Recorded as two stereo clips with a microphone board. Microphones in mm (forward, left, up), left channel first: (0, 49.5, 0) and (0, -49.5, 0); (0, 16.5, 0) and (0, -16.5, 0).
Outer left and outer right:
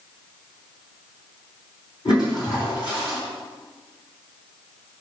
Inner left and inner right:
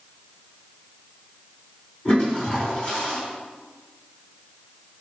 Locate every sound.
2.0 s a toilet flushing: 50° left (ahead or behind), 4 m